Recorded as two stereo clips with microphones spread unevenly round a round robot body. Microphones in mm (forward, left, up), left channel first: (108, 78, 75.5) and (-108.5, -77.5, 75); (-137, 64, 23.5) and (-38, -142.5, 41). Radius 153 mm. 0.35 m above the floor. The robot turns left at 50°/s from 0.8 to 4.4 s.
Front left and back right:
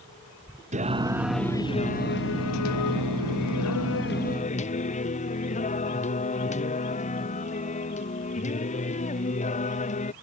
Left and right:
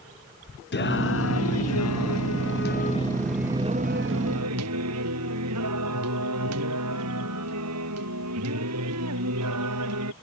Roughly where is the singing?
Behind left.